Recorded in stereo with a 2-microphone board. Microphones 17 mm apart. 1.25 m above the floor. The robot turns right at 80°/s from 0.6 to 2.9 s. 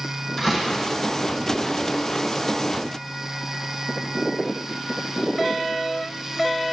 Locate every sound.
0.4 s a door slam: 25° left (ahead or behind), 5.5 m; by 0.8 s 40° left (ahead or behind), 5.5 m